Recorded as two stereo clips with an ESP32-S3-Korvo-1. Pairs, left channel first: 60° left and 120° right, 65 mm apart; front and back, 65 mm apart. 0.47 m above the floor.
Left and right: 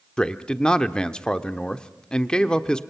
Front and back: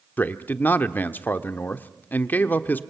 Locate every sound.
0.2 s a man speaking: straight ahead, 1.0 m